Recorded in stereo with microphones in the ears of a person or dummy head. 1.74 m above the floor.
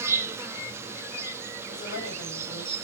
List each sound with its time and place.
0.0 s an insect: 15° right (ahead or behind), 0.7 m
1.7 s a woman speaking: 55° left (ahead or behind), 4 m